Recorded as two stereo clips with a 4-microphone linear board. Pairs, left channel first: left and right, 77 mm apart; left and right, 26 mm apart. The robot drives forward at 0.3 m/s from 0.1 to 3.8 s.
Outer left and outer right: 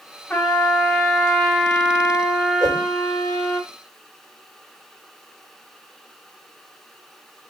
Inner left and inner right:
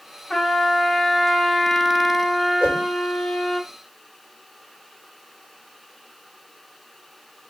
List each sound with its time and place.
0.3 s a trumpet: 15° left (ahead or behind), 1.9 m; by 3.6 s 10° left (ahead or behind), 2.5 m
2.6 s a whoosh: 55° right (ahead or behind), 5.5 m